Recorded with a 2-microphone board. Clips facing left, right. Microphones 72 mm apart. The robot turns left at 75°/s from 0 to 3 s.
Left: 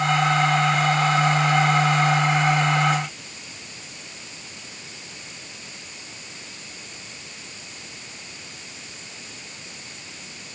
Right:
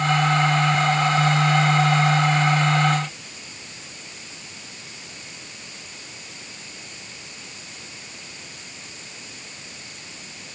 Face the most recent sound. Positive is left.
No sound to turn to.